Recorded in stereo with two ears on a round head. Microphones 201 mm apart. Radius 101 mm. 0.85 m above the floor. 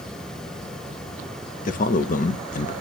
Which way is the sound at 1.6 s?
35° left (ahead or behind).